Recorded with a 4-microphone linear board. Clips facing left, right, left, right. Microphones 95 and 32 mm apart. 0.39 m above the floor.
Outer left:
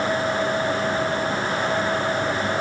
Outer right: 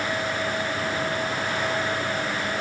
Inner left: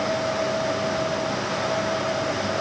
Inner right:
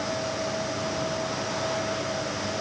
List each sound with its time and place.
Only background noise.